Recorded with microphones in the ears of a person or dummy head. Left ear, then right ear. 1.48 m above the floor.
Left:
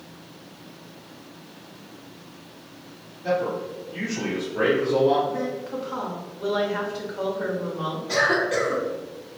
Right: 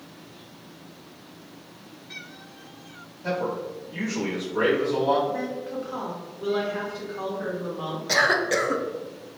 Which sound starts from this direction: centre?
A woman speaking, at 5.3 s.